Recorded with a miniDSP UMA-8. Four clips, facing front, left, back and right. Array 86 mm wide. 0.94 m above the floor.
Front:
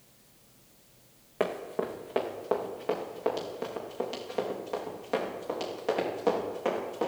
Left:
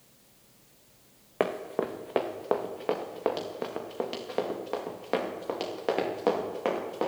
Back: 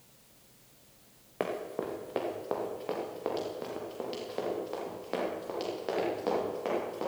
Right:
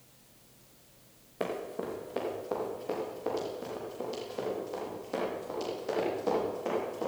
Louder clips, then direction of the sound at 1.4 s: Left 6 dB, front 3 dB; 85° left.